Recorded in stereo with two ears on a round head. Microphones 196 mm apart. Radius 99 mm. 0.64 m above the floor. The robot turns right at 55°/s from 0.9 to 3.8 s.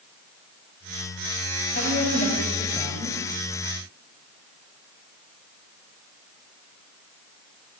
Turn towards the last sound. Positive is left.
turn(degrees=-120)